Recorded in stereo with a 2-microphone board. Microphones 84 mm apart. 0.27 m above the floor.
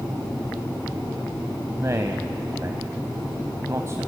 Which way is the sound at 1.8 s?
40° right (ahead or behind).